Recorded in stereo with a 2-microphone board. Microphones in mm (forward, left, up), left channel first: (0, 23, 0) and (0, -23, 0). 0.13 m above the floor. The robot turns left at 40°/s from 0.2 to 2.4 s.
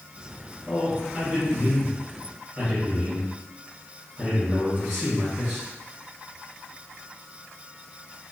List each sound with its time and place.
0.7 s a man speaking: 20° right (ahead or behind), 1.6 m; by 5.7 s 15° right (ahead or behind), 1.6 m